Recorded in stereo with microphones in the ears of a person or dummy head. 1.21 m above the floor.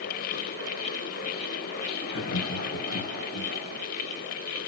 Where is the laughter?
70° left (ahead or behind), 1.1 m; by 3.5 s 50° left (ahead or behind), 1.6 m.